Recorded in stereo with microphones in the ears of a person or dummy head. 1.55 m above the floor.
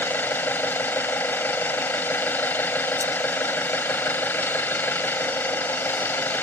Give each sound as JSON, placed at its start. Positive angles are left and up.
{"t": 0.0, "sound": "an engine running", "side_deg": 15}